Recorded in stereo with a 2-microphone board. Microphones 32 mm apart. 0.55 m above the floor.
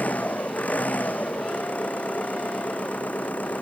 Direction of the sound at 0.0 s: 55° left (ahead or behind).